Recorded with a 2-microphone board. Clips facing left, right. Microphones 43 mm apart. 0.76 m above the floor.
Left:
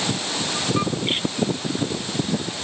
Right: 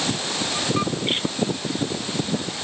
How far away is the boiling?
I don't hear boiling.